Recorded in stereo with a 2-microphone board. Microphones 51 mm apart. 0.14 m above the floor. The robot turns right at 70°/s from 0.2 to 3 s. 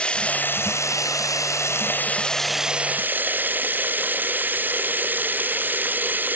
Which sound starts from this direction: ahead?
Running water, at 0.0 s.